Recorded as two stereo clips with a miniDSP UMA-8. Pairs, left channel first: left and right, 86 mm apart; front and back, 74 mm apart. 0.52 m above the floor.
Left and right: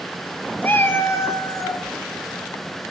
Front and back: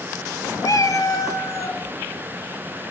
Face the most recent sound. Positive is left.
turn(degrees=45)